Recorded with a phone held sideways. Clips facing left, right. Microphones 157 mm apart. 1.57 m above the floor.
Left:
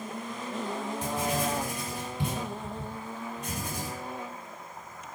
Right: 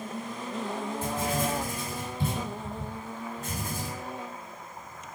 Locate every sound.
1.0 s writing: 80° left, 6 m